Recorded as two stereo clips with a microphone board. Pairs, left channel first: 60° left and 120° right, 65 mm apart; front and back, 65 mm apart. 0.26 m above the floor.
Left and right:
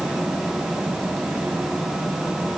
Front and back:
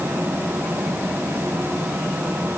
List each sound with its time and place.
Only background noise.